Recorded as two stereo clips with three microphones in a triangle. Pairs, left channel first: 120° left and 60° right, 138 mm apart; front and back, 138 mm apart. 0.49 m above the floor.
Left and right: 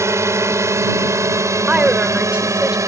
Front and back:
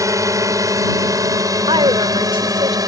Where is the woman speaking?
140° right.